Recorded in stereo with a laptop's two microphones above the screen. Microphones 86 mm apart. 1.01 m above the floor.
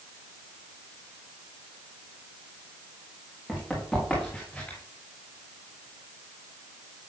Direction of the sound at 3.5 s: 5° right (ahead or behind).